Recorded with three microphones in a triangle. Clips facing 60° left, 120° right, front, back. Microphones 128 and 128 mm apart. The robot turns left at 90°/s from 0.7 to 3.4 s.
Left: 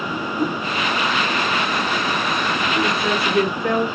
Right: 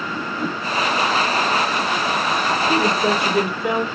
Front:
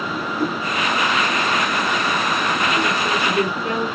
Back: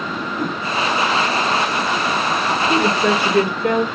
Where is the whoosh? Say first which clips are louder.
Left 4 dB, front 2 dB; 110° left, 9 m.